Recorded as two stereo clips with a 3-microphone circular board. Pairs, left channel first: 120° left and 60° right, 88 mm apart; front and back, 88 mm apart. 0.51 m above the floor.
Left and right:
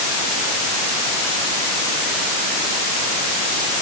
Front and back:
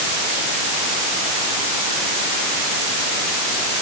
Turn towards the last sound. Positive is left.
No sound to turn to.